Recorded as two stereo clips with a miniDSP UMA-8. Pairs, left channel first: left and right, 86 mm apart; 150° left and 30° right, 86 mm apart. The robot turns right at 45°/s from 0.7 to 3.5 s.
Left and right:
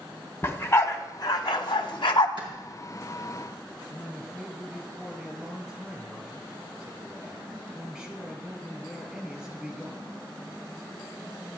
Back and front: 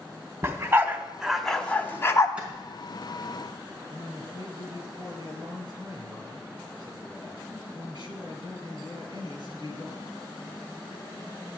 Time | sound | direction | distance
0.4 | a dog barking | 30° left | 0.9 m
2.4 | a clap | 105° right | 4 m
3.9 | a man speaking | 10° right | 3.5 m